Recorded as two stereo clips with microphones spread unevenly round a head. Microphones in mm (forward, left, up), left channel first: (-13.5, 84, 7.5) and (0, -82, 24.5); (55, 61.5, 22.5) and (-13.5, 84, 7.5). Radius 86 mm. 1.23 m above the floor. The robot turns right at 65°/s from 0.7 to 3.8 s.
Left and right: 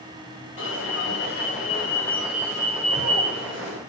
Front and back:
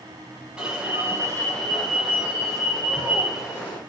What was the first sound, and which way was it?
An alarm, 85° left.